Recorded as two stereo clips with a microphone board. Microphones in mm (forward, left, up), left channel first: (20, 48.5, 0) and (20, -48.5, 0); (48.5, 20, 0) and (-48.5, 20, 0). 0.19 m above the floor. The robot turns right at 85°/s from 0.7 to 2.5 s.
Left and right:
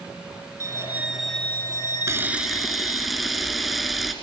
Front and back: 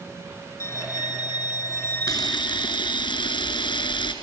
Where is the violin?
45° right, 0.8 m; by 3.1 s 105° left, 0.8 m.